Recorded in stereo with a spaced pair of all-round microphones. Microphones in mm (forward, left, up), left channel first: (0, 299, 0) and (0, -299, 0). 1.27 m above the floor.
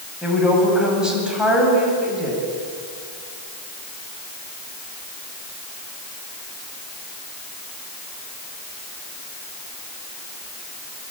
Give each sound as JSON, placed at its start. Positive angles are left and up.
{"t": 0.2, "sound": "a woman speaking", "side_deg": 0, "distance_m": 9.0}